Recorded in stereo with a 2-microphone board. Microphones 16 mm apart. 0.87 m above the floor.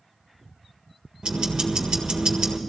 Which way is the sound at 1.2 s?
75° right (ahead or behind).